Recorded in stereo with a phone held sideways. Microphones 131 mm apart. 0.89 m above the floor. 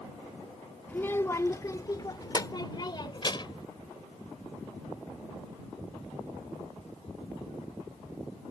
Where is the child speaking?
15° left (ahead or behind); by 3.6 s 40° left (ahead or behind).